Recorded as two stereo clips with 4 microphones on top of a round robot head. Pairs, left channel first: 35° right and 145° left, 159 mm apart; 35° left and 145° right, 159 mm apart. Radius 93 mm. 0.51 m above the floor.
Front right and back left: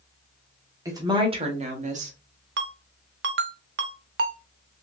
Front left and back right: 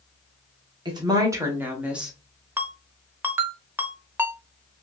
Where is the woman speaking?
170° right, 0.9 m; by 2.1 s 130° left, 1.2 m.